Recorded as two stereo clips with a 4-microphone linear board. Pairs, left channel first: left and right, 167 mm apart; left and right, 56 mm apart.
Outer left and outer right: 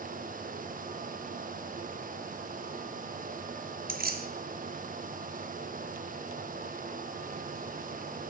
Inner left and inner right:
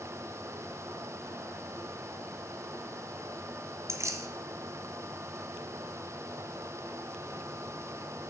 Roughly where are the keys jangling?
Right.